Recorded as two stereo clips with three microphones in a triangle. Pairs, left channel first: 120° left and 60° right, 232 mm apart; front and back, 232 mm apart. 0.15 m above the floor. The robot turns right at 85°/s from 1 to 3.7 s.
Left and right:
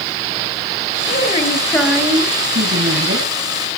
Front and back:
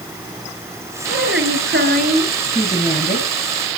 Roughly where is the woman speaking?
Behind left.